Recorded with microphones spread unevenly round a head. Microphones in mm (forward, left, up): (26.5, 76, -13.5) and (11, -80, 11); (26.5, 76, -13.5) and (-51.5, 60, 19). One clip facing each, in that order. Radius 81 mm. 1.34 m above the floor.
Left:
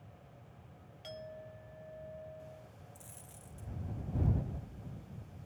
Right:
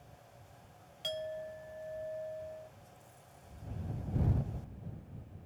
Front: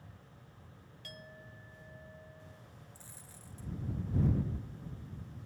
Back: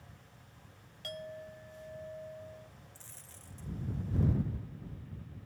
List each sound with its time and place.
1.0 s a clink: 130° right
3.0 s a dropped coin: 90° left